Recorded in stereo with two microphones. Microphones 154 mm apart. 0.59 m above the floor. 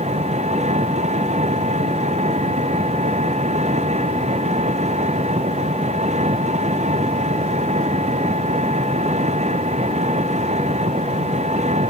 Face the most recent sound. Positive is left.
turn(degrees=-45)  # may be behind; listen again after turning